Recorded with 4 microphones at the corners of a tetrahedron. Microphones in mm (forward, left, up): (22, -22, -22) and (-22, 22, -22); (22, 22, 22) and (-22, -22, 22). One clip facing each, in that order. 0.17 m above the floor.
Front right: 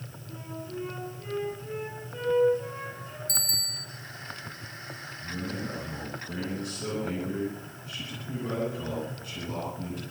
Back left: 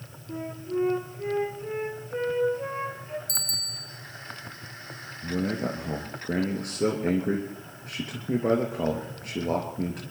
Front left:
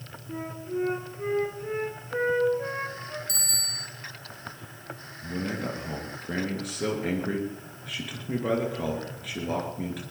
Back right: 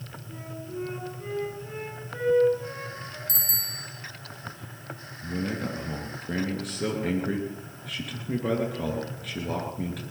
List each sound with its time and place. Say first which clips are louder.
0.3 s a flute: back left 8 dB, front left 6 dB; 90° left, 3.5 m
3.3 s a bicycle bell: front right 1 dB, front left 2 dB; 85° right, 2 m
5.2 s a man speaking: back left 7 dB, back right 1 dB; 135° left, 3 m